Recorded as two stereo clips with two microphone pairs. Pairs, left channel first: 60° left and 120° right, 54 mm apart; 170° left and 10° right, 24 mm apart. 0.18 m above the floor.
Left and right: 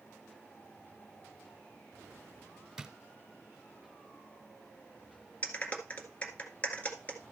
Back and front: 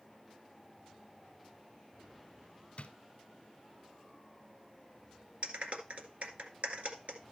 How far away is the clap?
About 1.7 m.